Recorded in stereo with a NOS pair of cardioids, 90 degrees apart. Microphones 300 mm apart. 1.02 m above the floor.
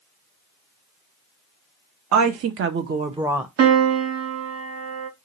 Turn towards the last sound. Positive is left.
turn(degrees=-55)